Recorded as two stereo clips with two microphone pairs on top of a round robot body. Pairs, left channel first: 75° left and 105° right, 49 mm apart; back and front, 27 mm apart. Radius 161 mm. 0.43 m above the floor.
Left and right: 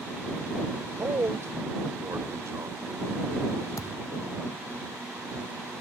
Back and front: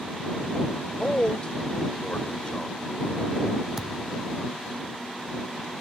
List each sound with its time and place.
1.0 s a man speaking: 125° right
3.8 s a thud: 75° left